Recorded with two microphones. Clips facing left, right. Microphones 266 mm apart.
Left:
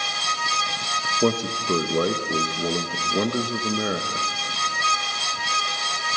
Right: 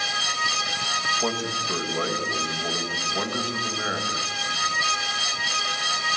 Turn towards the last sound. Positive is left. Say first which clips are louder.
# left 7 dB
turn(degrees=45)  # may be behind; listen again after turning